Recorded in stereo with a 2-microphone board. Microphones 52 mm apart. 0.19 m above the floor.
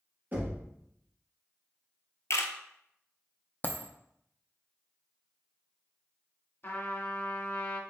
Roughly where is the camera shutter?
Left.